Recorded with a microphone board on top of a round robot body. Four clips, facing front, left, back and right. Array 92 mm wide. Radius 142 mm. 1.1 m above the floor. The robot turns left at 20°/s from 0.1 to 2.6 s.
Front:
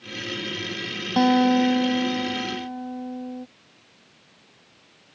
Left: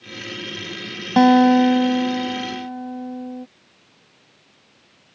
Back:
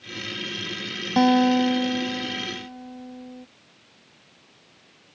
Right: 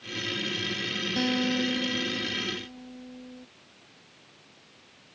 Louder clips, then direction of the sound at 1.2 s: Left 16 dB, even; 95° left.